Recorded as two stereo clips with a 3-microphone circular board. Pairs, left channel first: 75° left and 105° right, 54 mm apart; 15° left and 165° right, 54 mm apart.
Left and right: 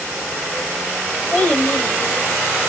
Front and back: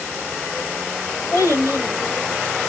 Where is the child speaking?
10° left, 3 m; by 2.7 s 15° left, 2 m.